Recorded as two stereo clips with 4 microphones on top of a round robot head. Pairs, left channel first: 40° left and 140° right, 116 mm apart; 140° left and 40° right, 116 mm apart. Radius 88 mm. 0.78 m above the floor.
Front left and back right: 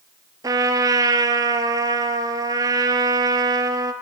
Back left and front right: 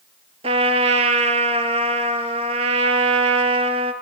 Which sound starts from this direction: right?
A trumpet, at 0.4 s.